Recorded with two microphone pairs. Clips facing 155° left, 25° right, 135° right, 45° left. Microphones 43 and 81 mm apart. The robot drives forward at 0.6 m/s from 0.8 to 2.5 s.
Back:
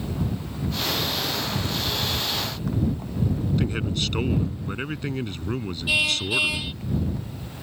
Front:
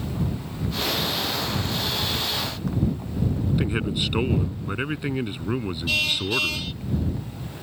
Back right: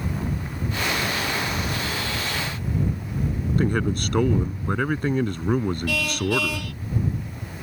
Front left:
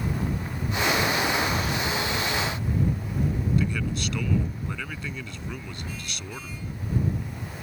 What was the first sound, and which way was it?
A man speaking, 100° right.